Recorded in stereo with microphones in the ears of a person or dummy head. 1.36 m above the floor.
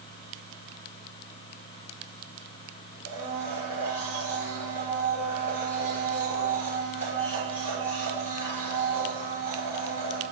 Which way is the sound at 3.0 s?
40° left (ahead or behind).